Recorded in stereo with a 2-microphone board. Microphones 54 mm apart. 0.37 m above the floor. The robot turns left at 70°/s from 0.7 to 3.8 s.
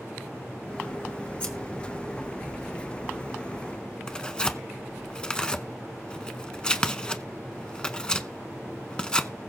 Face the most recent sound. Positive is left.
turn(degrees=20)  # may be behind; listen again after turning